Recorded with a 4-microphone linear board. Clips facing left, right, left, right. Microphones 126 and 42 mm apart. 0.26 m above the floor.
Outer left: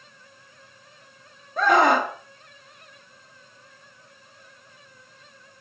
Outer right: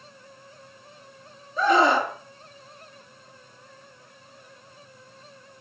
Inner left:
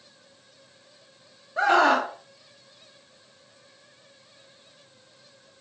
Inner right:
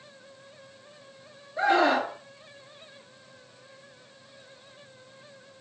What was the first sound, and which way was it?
A scream, 55° left (ahead or behind).